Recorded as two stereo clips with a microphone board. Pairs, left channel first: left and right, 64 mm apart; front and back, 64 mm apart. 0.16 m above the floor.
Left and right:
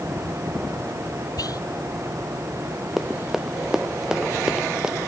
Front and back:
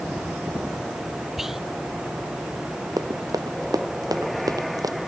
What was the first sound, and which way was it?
Whispering, 95° left.